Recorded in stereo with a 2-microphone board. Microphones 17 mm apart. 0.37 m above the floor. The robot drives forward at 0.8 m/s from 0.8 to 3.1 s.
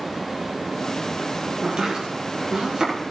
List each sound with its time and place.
1.6 s chopping: 60° right (ahead or behind), 6.5 m; by 2.9 s 55° right (ahead or behind), 7 m